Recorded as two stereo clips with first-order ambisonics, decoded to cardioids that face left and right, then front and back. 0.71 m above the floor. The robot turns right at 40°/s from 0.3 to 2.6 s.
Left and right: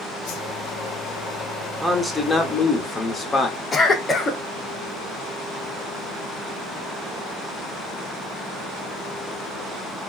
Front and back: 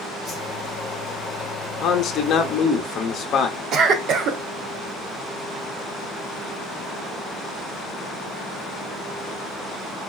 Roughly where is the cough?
Behind left.